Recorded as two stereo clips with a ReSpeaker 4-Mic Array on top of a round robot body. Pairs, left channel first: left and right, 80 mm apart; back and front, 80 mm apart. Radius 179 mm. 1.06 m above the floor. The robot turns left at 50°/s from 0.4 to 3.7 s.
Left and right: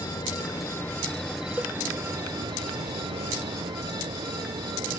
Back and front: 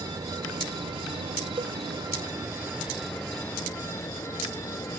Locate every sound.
0.0 s an insect: 45° left; by 5.0 s 120° right
1.6 s a cowbell: 15° right; by 1.8 s 25° right